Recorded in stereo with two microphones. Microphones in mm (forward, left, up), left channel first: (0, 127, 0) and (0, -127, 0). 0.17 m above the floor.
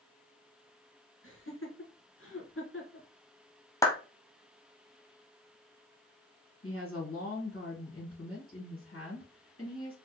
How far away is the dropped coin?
No dropped coin in this recording.